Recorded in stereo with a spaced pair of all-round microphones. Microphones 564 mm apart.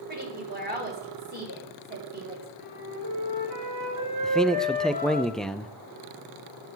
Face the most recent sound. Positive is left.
turn(degrees=0)  # may be behind; listen again after turning